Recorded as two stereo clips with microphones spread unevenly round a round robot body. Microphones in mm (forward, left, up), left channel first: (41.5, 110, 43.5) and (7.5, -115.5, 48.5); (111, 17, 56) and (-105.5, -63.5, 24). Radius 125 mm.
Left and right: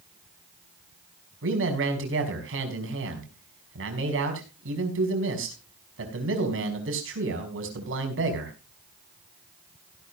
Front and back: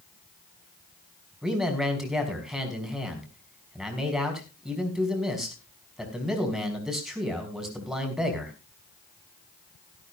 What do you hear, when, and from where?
1.4 s a man speaking: 75° right, 4.5 m